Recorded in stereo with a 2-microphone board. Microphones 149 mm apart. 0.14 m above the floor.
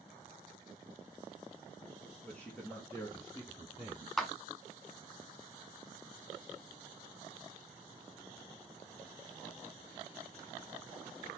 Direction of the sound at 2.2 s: 5° left (ahead or behind).